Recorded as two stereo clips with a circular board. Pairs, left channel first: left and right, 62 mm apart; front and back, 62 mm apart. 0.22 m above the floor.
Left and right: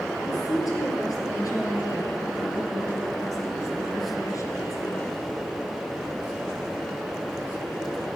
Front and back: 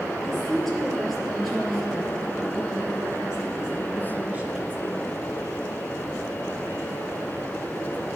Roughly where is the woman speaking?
Left.